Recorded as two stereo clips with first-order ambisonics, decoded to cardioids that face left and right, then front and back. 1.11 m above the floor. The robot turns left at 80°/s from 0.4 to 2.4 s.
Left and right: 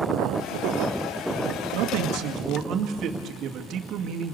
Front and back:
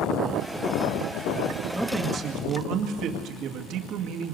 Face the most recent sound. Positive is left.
turn(degrees=-140)